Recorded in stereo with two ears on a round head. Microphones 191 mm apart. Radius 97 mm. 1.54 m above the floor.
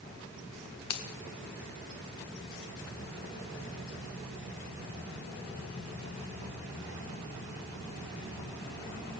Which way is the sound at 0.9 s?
90° left.